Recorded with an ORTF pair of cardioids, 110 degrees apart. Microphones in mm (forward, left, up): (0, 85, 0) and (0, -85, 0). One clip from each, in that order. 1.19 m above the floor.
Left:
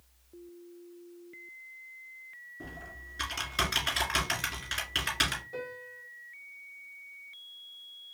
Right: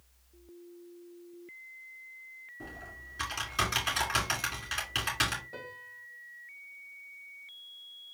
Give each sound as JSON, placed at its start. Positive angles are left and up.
{"t": 2.6, "sound": "typing on a keyboard", "azimuth_deg": 0, "distance_m": 2.5}
{"t": 5.5, "sound": "a piano", "azimuth_deg": -15, "distance_m": 1.2}